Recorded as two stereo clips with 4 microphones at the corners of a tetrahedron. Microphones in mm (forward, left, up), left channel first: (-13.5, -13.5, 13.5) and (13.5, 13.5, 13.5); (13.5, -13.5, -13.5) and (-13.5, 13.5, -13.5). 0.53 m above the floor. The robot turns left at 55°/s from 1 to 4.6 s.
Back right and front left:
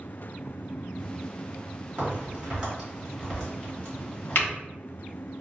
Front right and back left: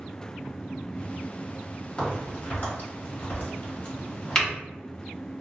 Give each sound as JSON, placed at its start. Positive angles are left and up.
{"t": 2.0, "sound": "a crack", "azimuth_deg": 15, "distance_m": 1.4}